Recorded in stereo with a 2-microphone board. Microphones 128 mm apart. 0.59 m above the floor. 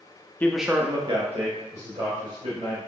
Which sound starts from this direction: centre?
A man speaking, at 0.4 s.